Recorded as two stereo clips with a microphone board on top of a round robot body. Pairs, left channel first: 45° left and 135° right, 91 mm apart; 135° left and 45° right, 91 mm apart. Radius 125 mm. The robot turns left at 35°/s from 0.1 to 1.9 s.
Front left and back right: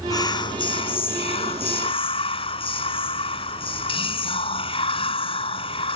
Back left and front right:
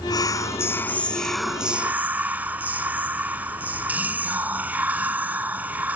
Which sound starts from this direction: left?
Whispering, at 0.1 s.